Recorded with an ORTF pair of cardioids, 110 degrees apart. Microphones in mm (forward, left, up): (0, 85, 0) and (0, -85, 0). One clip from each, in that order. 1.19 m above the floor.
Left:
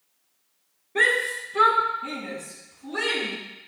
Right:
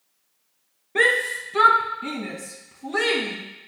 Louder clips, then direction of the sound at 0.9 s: Right 2 dB; 25° right.